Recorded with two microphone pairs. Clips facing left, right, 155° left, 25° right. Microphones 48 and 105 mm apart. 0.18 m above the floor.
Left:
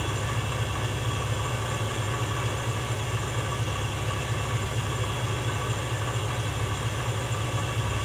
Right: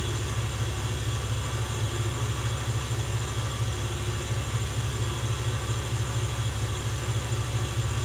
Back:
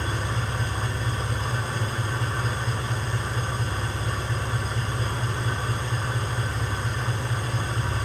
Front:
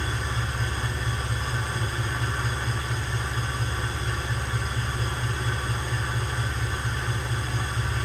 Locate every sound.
0.0 s an engine running: 110° left, 6 m